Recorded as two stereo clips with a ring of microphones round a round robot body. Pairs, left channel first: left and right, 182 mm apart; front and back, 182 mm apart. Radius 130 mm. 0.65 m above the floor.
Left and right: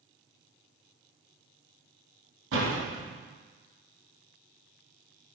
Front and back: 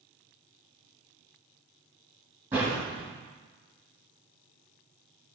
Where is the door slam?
100° right, 2.5 m.